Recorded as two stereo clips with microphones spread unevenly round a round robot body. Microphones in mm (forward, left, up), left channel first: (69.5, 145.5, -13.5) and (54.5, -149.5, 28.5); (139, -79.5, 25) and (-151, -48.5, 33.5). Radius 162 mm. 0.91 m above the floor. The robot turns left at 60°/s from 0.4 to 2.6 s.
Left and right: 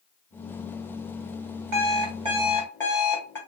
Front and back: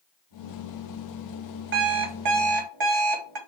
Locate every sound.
1.7 s an alarm clock: 135° right, 1.3 m; by 3.4 s 175° left, 1.3 m